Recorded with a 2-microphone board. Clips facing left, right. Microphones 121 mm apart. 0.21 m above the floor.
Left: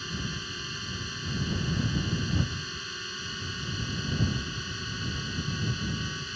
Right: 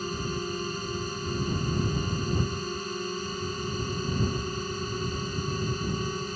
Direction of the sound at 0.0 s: 45° right (ahead or behind).